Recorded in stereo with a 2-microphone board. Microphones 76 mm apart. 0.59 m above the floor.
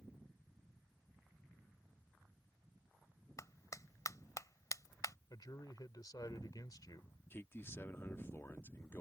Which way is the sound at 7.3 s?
30° left (ahead or behind).